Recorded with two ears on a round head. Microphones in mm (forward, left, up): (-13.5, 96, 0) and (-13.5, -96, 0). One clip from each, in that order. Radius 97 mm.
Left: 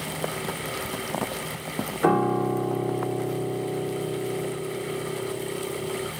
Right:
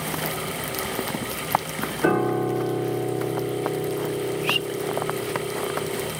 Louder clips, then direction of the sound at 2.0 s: Even; 20° left (ahead or behind).